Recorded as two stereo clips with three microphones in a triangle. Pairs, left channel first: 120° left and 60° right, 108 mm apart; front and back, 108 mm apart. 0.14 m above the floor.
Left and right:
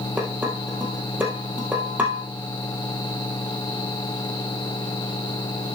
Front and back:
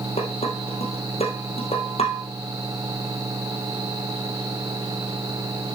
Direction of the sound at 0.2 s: 15° left.